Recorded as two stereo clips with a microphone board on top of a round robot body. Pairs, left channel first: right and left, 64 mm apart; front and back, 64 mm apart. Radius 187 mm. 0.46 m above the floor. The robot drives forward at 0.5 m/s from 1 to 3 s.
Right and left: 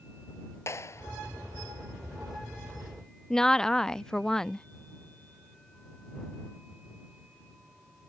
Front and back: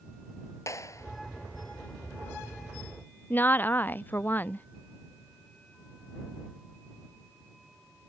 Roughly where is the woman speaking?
Ahead.